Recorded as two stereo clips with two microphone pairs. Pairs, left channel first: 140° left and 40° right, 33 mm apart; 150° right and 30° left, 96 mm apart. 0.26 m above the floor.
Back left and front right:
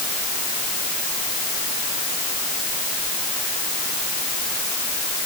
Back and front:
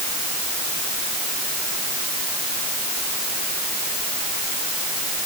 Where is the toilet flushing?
I don't hear a toilet flushing.